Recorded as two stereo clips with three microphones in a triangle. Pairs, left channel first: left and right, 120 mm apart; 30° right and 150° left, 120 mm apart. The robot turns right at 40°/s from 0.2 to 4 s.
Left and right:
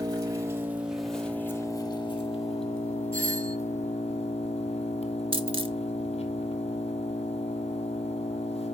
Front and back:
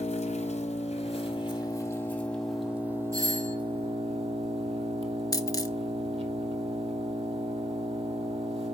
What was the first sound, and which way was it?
An engine running, 35° right.